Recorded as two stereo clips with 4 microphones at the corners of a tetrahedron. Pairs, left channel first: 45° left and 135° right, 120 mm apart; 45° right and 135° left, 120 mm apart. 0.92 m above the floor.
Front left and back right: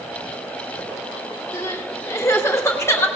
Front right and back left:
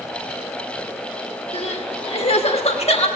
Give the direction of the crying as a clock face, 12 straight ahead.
1 o'clock.